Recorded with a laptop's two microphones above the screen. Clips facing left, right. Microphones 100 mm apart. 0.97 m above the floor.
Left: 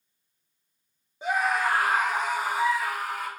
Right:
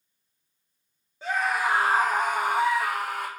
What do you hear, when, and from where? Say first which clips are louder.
1.2 s a scream: left 1 dB; 20° left (ahead or behind), 1.0 m; by 3.3 s 70° right (ahead or behind), 2 m